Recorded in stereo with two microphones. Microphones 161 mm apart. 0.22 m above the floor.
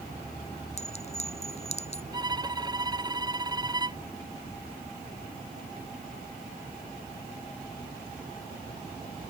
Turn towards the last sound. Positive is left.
turn(degrees=-25)  # may be behind; listen again after turning